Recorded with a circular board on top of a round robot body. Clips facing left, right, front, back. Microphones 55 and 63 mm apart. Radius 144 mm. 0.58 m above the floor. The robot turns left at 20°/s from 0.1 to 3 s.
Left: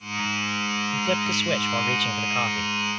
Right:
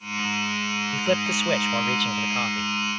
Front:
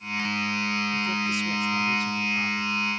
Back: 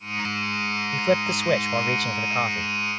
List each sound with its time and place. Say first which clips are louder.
0.9 s a man speaking: right 2 dB, back 5 dB; 160° right; by 2.7 s 165° left